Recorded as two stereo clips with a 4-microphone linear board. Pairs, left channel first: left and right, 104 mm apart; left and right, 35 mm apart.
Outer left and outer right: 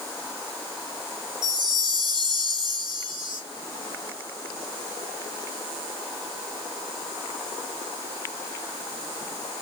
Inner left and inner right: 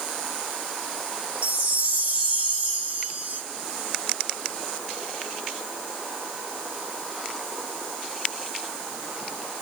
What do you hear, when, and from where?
1.4 s a chime: 45° right (ahead or behind), 2.5 m